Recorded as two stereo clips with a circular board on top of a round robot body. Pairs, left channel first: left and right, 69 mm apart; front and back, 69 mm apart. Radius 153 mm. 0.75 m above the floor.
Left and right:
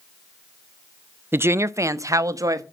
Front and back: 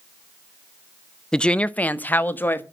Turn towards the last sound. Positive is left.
turn(degrees=-60)